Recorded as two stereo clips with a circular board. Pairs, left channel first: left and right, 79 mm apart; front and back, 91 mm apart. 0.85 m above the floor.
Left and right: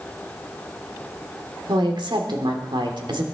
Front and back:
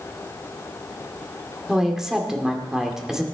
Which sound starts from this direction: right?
A woman speaking, at 1.7 s.